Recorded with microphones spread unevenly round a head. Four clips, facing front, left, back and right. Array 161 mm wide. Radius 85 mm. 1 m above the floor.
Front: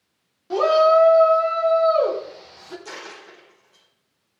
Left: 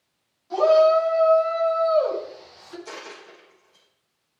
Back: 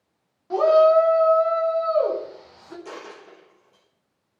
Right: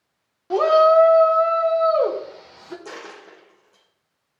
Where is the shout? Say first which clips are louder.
Right 2 dB, even; 70° right, 3.5 m; by 2.8 s 75° right, 4.5 m.